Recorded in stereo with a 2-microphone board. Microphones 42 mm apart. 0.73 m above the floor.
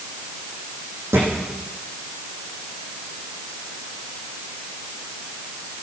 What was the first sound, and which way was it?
A thud, 85° right.